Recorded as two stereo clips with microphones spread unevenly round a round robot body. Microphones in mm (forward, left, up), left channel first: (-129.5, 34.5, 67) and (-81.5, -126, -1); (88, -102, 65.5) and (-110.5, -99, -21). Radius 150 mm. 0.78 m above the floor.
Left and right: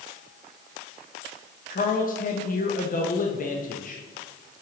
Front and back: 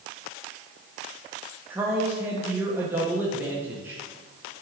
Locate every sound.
1.7 s a man speaking: 150° left, 0.9 m